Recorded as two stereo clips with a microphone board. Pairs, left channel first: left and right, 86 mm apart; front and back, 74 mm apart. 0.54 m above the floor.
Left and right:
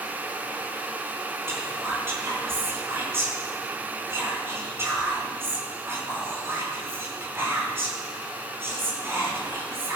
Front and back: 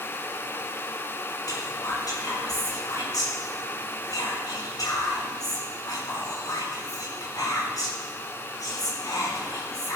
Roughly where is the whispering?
Ahead right.